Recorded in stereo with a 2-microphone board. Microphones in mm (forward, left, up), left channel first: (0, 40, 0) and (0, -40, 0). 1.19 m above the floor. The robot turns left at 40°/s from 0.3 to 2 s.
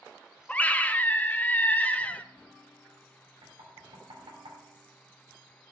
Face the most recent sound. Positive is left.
turn(degrees=-80)